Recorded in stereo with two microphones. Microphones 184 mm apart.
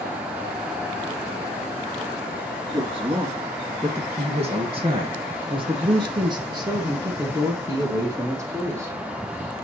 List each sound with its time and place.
2.7 s a woman speaking: 30° right (ahead or behind), 1.4 m; by 9.0 s 15° right (ahead or behind), 3 m